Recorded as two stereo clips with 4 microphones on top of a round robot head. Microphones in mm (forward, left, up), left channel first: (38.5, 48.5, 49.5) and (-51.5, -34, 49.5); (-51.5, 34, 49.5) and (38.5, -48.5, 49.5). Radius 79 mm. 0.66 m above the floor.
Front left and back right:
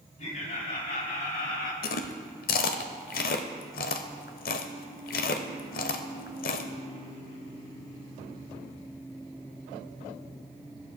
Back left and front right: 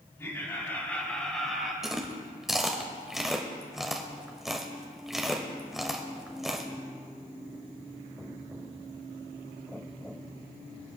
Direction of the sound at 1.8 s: 45° left.